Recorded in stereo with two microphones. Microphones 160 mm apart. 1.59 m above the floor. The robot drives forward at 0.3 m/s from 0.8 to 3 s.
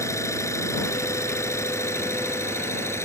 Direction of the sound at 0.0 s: 20° left (ahead or behind).